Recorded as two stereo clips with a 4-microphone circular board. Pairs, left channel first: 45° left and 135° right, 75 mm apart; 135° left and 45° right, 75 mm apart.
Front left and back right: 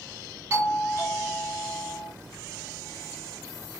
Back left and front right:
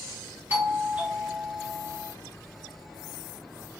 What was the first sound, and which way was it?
A doorbell, 100° right.